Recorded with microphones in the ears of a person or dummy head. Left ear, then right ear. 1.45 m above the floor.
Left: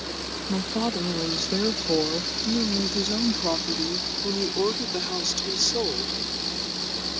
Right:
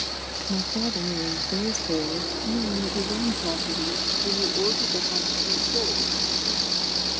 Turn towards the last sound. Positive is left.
turn(degrees=80)